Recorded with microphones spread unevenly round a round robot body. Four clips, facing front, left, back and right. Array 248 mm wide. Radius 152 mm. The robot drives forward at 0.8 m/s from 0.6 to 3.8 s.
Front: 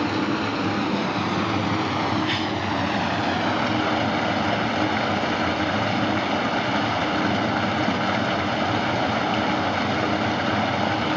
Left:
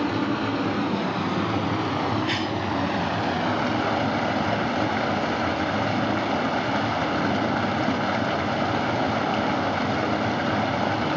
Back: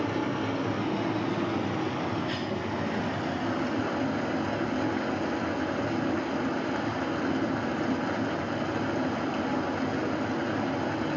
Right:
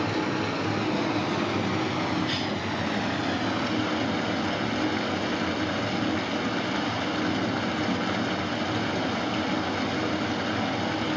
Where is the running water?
10° left, 5 m; by 11.2 s 20° left, 2.5 m.